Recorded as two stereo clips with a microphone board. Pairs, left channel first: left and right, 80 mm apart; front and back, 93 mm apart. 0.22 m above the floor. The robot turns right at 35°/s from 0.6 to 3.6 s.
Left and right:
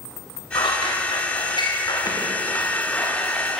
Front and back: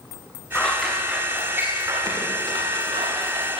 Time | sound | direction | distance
0.6 | scissors | 80° left | 7.5 m